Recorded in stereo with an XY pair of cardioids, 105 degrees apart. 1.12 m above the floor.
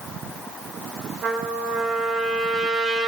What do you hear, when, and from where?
1.2 s a trumpet: 55° right, 0.9 m